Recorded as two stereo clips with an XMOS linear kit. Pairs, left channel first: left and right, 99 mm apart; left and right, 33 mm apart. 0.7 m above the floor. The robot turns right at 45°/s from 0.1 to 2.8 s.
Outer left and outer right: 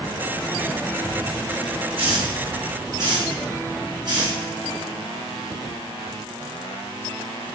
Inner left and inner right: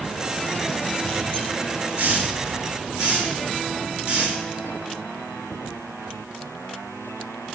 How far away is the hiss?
About 5 m.